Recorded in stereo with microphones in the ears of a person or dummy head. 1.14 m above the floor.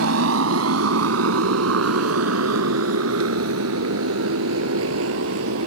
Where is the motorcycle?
75° right (ahead or behind); by 5.7 s 85° right.